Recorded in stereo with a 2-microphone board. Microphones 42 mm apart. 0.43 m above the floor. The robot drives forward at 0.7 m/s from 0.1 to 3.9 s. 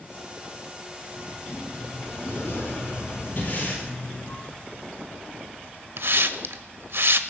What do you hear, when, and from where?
1.2 s a sliding door: 75° left (ahead or behind), 6 m; by 4.4 s 60° left (ahead or behind), 6.5 m
3.4 s breathing: 45° left (ahead or behind), 8 m
6.0 s a hiss: 65° right (ahead or behind), 0.9 m